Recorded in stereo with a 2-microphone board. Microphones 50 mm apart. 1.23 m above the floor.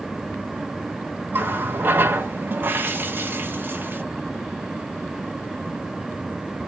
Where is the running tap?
45° right (ahead or behind), 0.8 m.